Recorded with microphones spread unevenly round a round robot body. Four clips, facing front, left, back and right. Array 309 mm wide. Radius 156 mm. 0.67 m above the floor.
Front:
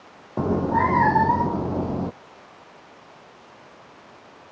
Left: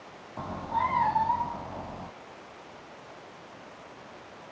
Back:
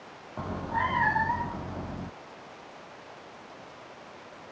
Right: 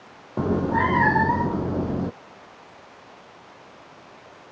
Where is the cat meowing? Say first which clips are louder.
Right 8 dB, front 10 dB; 40° right; by 2.1 s 45° right.